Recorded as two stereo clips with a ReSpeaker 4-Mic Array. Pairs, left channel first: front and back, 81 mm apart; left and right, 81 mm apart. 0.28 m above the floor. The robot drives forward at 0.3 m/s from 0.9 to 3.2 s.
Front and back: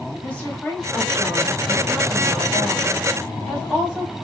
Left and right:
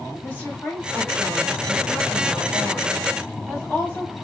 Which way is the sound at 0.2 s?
50° left.